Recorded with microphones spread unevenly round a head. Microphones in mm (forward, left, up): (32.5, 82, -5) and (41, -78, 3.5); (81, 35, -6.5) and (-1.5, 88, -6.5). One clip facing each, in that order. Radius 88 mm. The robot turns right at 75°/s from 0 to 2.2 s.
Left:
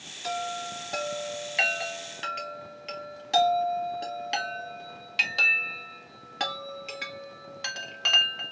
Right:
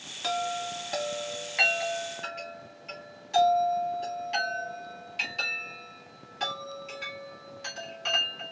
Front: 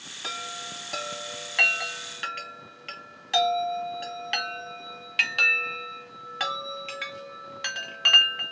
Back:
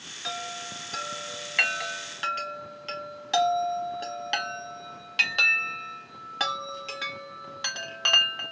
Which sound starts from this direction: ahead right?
A chime, at 0.2 s.